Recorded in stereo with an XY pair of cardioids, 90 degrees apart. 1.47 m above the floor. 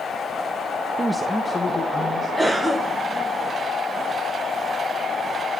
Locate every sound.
1.0 s a man speaking: 30° right, 0.6 m; by 2.3 s 40° left, 2 m
2.4 s a cough: 15° right, 1.9 m